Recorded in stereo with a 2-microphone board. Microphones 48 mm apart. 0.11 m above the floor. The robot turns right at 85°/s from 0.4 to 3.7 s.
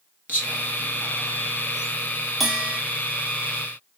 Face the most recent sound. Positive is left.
turn(degrees=-65)